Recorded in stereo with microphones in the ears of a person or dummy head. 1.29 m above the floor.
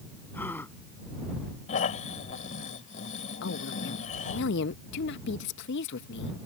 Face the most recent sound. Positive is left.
turn(degrees=70)  # may be behind; listen again after turning